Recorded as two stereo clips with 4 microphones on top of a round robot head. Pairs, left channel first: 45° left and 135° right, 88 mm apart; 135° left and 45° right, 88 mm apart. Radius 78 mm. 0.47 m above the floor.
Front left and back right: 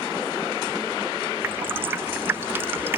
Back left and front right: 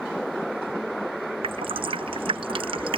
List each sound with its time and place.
1.4 s dripping: 70° right